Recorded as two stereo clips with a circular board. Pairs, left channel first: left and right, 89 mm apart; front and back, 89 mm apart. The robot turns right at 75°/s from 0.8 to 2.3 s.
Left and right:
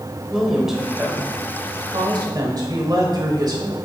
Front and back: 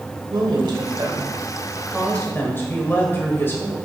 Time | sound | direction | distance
0.3 | a woman speaking | 175° right | 1.6 m